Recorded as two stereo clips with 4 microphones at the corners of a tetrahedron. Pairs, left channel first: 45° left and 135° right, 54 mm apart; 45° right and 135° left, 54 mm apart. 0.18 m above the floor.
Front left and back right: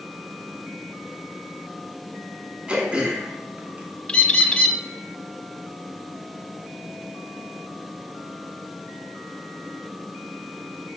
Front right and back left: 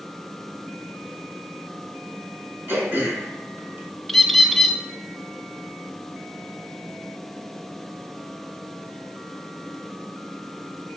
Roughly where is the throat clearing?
Behind.